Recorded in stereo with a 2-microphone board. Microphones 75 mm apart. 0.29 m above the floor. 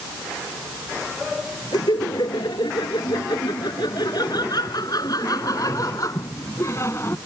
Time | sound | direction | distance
1.7 | laughter | 75° left (ahead or behind) | ?